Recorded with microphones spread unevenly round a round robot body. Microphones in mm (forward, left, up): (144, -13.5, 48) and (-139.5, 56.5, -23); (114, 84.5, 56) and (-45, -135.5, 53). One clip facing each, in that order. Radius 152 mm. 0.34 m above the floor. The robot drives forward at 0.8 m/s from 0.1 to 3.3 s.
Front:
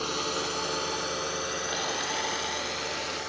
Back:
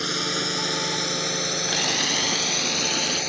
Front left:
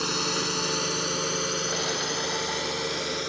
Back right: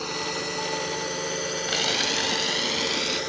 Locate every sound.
0.0 s a drone: 120° left; by 3.3 s 140° left
1.7 s a camera shutter: 170° right; by 3.2 s 175° right